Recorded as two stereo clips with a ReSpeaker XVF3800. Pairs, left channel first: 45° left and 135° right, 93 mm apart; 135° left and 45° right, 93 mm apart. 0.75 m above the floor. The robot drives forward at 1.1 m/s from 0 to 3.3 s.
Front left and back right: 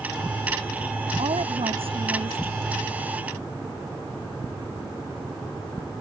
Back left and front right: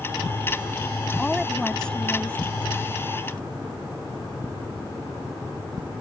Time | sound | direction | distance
1.2 | a woman speaking | 140° right | ?